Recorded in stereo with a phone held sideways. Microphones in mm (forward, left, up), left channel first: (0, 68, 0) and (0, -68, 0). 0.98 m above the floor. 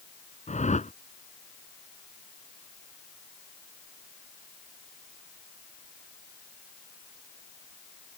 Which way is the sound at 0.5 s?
60° left (ahead or behind).